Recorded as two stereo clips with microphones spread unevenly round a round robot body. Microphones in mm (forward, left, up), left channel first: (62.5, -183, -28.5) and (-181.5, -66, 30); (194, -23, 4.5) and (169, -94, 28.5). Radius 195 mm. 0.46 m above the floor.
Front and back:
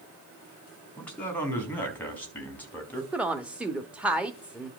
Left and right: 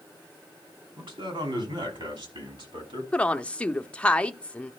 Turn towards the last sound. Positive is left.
turn(degrees=50)